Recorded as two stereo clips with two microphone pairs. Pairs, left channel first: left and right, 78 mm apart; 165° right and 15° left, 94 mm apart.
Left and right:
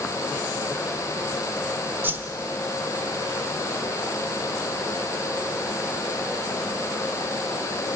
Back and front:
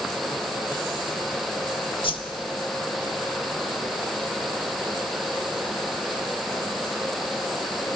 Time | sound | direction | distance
2.0 | a whoosh | 150° right | 1.1 m